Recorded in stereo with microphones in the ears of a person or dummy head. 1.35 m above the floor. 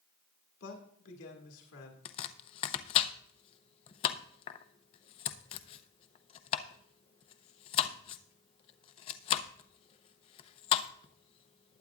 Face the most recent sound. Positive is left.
turn(degrees=35)  # may be behind; listen again after turning